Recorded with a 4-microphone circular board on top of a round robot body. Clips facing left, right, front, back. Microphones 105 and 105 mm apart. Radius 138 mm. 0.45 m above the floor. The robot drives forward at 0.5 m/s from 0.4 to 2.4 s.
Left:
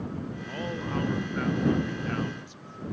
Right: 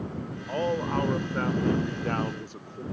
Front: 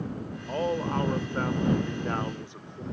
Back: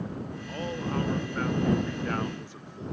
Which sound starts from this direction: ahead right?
A man speaking, at 0.5 s.